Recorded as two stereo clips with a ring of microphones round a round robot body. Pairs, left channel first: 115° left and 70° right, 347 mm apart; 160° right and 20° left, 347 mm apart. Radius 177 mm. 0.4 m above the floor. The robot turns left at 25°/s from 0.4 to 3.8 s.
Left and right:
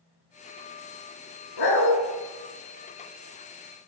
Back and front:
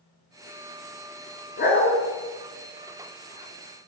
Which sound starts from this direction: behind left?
A dog barking, at 1.6 s.